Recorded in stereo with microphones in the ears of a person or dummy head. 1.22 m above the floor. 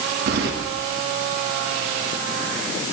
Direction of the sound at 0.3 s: 65° right (ahead or behind).